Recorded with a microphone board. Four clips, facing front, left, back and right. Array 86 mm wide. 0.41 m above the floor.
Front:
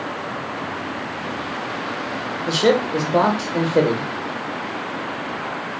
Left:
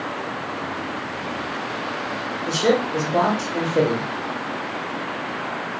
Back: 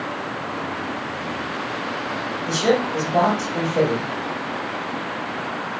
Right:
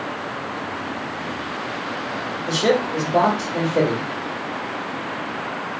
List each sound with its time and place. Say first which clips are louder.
2.5 s a man speaking: even, front 2 dB; 5° right, 1.1 m